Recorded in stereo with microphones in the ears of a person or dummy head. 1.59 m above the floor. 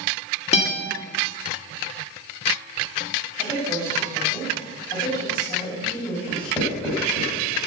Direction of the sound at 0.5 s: 40° left (ahead or behind).